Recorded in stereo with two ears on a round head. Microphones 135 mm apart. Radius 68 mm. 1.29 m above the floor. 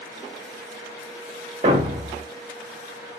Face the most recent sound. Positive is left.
turn(degrees=-30)  # may be behind; listen again after turning